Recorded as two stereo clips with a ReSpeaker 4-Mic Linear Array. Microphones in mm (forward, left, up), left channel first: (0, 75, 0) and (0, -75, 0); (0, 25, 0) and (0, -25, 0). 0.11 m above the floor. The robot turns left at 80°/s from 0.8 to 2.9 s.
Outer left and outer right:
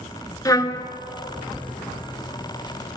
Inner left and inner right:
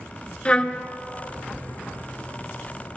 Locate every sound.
0.5 s a trumpet: 25° left (ahead or behind), 0.6 m